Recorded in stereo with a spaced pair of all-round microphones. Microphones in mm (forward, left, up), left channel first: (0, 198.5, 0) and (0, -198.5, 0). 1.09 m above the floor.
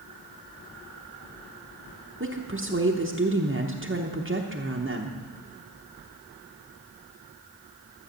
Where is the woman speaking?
30° right (ahead or behind), 1.0 m.